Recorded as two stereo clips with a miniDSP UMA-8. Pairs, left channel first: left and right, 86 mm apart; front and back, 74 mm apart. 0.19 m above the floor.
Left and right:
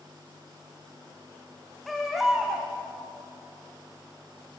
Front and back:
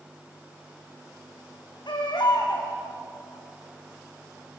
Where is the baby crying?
Straight ahead, 4 m.